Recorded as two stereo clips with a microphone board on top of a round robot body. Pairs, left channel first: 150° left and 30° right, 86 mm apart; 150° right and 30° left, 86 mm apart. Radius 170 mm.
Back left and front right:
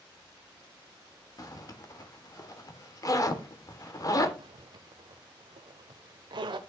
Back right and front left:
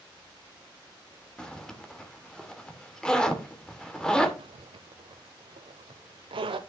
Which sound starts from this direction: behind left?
A zipper, at 1.4 s.